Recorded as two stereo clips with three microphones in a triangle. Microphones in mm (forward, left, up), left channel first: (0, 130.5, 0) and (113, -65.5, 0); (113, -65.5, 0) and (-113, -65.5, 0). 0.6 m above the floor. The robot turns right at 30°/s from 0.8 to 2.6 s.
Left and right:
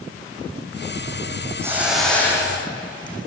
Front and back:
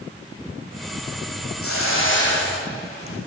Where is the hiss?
20° left, 9 m; by 3.2 s 50° left, 9 m.